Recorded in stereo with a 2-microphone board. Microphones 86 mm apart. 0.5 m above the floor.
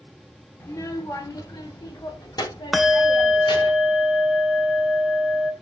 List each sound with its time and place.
0.6 s a child speaking: 35° left (ahead or behind), 1.0 m; by 3.7 s 55° left (ahead or behind), 2.5 m
2.7 s a bell: centre (ahead or behind), 0.6 m